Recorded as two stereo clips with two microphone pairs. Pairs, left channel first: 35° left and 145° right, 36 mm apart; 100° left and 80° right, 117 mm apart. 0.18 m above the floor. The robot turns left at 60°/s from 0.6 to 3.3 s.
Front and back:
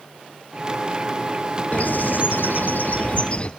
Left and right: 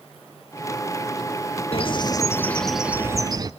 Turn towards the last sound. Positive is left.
turn(degrees=-25)